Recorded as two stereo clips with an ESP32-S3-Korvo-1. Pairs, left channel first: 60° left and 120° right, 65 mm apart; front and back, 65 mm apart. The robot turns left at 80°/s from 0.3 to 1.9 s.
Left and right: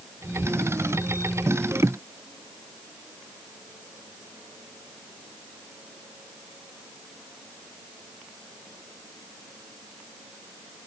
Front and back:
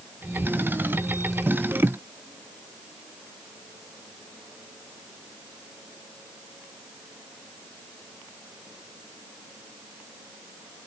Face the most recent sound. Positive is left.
No sound to turn to.